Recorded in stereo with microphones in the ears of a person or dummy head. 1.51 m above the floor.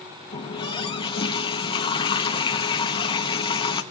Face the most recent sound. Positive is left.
turn(degrees=30)  # may be behind; listen again after turning